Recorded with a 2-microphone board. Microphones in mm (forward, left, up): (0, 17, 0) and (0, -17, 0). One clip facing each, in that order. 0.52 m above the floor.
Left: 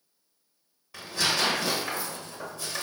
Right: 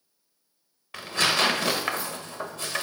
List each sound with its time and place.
0.9 s tearing paper: 65° right (ahead or behind), 0.5 m